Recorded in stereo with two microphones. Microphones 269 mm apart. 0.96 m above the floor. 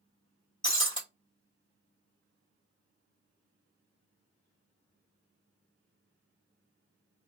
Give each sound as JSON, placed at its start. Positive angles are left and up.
{"t": 0.6, "sound": "breaking glass", "side_deg": 15, "distance_m": 1.8}